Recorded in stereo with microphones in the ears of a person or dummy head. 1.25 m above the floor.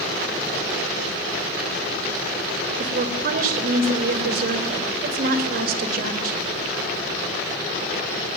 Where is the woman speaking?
60° right (ahead or behind), 5.5 m.